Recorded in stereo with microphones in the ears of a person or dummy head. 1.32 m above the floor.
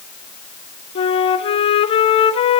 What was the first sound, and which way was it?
A flute, 40° left (ahead or behind).